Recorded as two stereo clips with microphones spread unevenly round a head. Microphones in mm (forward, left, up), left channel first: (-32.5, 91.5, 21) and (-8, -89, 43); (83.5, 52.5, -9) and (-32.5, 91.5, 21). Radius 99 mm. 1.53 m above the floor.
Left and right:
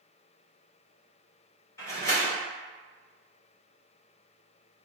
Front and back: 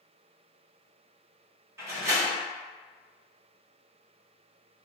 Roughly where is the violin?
I don't hear a violin.